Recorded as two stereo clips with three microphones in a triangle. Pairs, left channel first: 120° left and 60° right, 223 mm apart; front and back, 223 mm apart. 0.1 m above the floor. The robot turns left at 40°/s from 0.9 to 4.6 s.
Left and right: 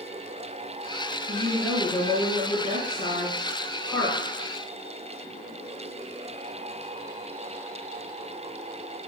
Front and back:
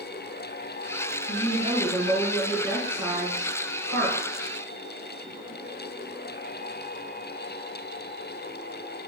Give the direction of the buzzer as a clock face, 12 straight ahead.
No buzzer in this recording.